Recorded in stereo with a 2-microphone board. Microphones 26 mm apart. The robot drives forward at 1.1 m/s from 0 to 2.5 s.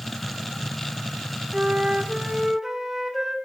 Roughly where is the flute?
Right.